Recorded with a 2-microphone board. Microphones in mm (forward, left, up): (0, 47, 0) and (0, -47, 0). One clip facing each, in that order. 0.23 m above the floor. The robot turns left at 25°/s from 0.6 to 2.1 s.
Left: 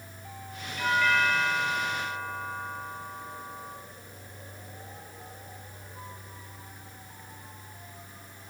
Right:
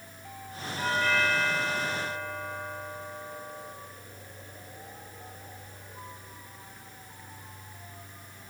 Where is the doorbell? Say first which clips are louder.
Left 2 dB; 30° right, 7 m; by 3.7 s 65° right, 7 m.